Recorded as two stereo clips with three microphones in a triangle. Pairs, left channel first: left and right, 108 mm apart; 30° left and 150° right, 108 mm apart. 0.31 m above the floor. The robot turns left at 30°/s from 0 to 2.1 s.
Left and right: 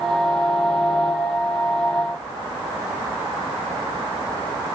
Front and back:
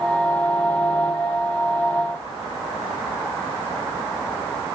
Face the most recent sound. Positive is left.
No sound to turn to.